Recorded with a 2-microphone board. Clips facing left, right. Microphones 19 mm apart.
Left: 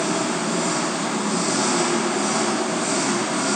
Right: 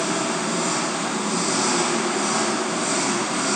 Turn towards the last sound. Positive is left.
turn(degrees=-5)  # may be behind; listen again after turning